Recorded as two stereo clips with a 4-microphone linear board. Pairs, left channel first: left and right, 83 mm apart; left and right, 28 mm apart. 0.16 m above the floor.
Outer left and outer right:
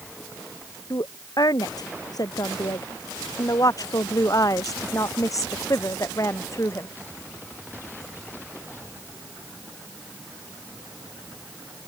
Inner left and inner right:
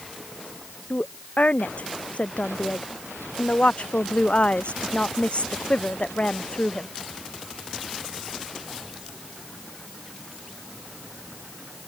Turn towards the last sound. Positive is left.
turn(degrees=40)  # may be behind; listen again after turning